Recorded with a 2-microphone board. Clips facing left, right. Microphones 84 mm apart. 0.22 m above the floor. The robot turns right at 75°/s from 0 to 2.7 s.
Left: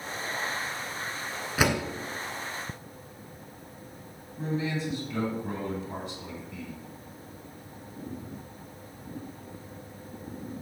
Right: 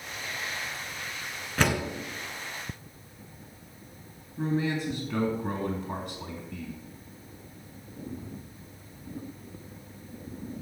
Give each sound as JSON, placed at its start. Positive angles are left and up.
{"t": 1.6, "sound": "a door slam", "side_deg": 5, "distance_m": 1.5}
{"t": 4.4, "sound": "a man speaking", "side_deg": -60, "distance_m": 2.5}